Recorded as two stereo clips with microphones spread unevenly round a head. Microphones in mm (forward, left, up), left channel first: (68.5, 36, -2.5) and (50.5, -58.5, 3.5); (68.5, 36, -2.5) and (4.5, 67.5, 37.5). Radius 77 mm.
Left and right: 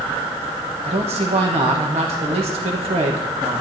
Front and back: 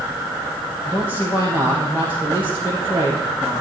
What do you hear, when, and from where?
0.8 s a man speaking: 110° right, 1.7 m